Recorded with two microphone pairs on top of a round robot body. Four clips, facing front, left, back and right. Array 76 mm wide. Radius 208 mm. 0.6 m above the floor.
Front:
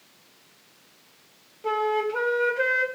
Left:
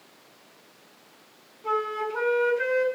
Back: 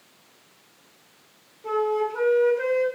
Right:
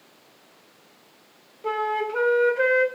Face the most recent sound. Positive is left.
turn(degrees=-60)